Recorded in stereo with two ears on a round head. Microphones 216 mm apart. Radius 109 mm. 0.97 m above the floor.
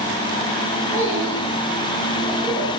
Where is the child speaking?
20° left (ahead or behind), 5 m; by 2.7 s centre (ahead or behind), 4.5 m.